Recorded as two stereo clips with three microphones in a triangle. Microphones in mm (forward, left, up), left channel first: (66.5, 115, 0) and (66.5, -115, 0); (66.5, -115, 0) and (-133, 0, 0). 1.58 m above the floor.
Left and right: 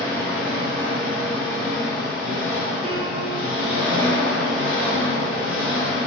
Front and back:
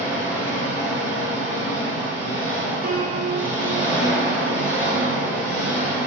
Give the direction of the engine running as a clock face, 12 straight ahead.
9 o'clock.